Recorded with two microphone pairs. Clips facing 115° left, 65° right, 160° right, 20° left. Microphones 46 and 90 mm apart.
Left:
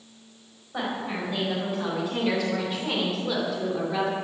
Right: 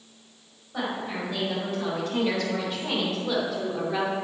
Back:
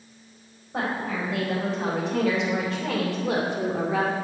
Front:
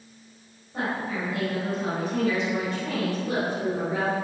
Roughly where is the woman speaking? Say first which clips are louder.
Even, back 1 dB; behind.